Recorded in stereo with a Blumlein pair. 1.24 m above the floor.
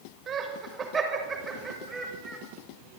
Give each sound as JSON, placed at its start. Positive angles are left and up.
{"t": 0.3, "sound": "laughter", "azimuth_deg": -25, "distance_m": 6.0}